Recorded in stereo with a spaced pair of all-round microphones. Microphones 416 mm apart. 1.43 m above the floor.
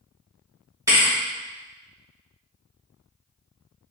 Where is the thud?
5° right (ahead or behind), 1.6 m.